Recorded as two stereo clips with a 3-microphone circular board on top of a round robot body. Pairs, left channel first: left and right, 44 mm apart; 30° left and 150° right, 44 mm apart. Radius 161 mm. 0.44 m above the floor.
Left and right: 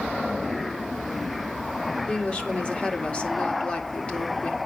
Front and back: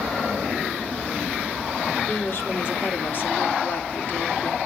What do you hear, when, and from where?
2.1 s a woman speaking: 35° left, 2 m